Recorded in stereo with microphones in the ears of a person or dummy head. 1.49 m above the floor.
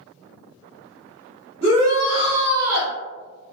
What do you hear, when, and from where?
1.6 s a shout: 10° right (ahead or behind), 0.9 m; by 2.9 s 65° right (ahead or behind), 0.5 m